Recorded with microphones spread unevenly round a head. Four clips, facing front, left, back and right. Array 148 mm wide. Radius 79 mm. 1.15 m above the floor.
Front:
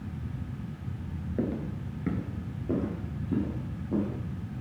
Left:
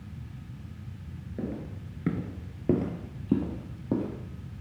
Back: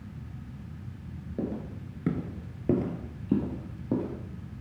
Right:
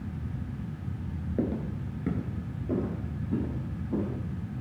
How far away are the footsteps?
About 1.3 m.